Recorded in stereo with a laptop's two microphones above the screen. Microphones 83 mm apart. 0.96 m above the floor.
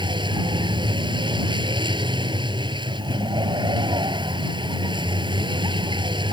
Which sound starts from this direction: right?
A vehicle, at 0.0 s.